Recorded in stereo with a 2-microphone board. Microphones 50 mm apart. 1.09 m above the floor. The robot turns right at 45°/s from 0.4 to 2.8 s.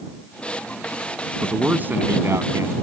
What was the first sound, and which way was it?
A man speaking, 160° right.